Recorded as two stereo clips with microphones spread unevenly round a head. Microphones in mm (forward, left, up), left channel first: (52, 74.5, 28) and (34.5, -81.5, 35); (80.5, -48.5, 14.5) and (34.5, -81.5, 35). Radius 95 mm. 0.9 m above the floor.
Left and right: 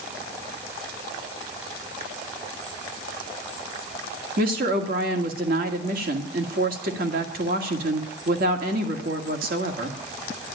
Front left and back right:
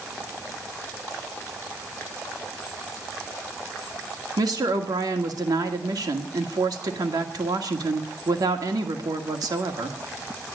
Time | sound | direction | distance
4.4 | a woman speaking | 135° right | 2 m